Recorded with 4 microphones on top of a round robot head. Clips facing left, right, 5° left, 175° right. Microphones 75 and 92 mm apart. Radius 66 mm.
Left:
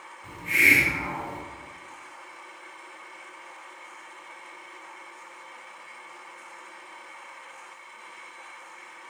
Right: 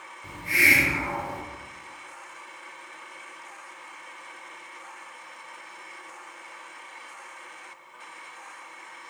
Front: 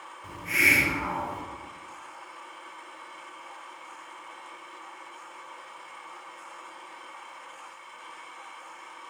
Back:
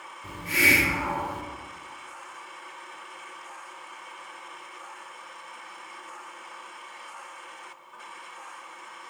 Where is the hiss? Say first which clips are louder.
Even, back 2 dB; 135° right, 1.0 m.